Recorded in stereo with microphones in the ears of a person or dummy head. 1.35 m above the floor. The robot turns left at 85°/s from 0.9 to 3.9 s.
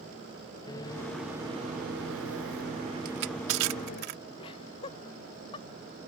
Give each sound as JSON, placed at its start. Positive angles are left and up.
{"t": 0.7, "sound": "a microwave", "azimuth_deg": 25}
{"t": 3.0, "sound": "crushing", "side_deg": -50}
{"t": 4.4, "sound": "laughter", "side_deg": 30}